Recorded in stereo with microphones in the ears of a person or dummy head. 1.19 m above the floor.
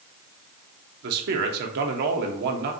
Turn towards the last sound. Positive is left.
turn(degrees=-65)  # may be behind; listen again after turning